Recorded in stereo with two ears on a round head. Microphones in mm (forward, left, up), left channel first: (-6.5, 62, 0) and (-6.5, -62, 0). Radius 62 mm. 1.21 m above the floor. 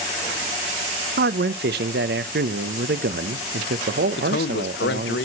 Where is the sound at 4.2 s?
85° left, 0.9 m.